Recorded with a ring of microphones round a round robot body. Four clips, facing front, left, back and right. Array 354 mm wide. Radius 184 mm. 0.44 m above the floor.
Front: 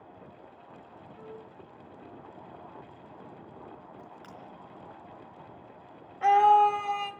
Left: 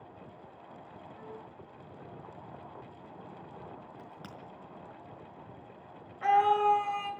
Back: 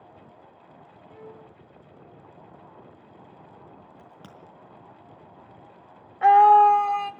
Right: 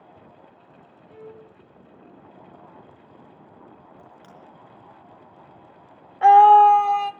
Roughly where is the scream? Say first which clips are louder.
Right 14 dB, back 6 dB; right.